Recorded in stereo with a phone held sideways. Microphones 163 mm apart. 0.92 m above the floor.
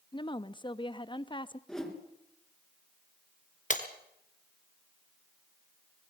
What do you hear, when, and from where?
0.1 s a woman speaking: 30° left (ahead or behind), 0.8 m
1.7 s a whoosh: 5° left (ahead or behind), 3.5 m
3.7 s breaking glass: 50° left (ahead or behind), 2 m